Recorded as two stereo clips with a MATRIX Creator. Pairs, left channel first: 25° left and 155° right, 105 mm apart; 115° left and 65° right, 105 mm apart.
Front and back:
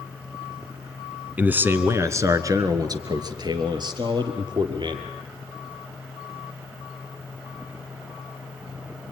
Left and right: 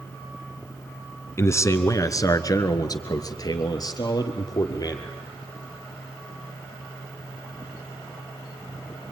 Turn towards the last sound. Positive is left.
turn(degrees=165)